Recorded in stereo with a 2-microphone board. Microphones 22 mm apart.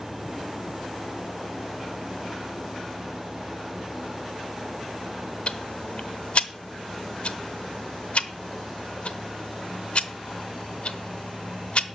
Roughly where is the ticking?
Left.